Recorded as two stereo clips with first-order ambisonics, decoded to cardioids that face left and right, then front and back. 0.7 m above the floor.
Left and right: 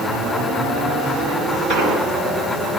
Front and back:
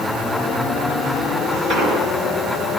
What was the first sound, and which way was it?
An explosion, 140° right.